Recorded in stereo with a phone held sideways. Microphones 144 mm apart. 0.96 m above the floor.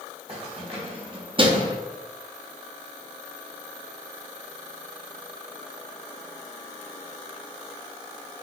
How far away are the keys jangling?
About 1.6 m.